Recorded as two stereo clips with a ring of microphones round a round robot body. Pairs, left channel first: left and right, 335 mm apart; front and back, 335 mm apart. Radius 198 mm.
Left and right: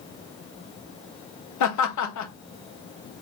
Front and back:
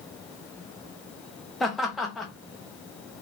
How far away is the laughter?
About 1.2 m.